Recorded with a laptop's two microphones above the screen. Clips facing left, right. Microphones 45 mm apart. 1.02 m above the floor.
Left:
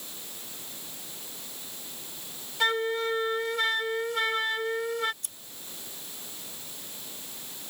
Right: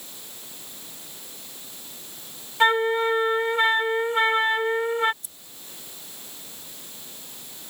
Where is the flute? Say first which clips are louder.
Right 7 dB; 30° right (ahead or behind).